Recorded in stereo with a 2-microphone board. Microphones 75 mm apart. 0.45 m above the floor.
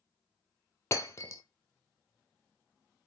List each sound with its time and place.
0.9 s breaking glass: 40° left (ahead or behind), 0.8 m